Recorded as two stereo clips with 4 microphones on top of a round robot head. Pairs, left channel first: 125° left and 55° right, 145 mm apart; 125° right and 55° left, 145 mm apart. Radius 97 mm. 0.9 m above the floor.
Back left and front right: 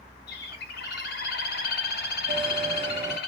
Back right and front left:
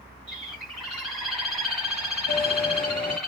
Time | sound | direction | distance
0.3 | a bird | 145° left | 1.7 m
2.3 | a bell | 70° right | 0.5 m